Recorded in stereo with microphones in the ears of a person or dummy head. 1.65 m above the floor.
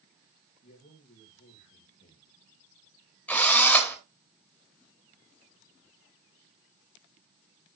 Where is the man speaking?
45° left (ahead or behind), 2.5 m.